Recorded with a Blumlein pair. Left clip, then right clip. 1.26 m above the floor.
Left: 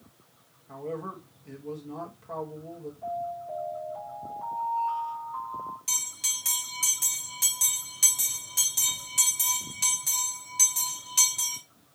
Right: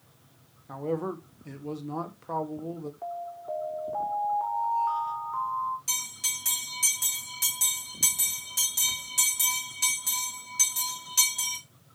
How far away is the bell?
About 3 m.